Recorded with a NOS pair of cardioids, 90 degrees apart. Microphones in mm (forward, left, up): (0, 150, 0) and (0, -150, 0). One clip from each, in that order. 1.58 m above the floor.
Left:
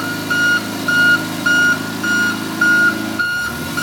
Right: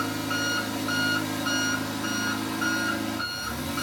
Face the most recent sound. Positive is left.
turn(degrees=60)